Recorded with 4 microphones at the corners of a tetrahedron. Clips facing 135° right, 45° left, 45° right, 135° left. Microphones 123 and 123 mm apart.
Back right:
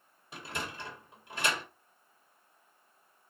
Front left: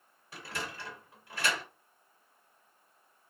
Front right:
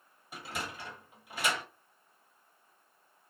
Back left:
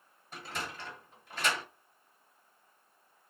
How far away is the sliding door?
About 1.5 m.